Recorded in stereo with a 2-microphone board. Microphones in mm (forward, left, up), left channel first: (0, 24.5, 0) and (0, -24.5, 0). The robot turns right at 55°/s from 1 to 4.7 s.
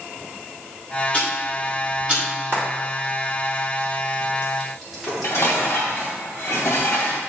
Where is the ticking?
30° left (ahead or behind), 2.5 m; by 2.2 s 25° right (ahead or behind), 2.5 m.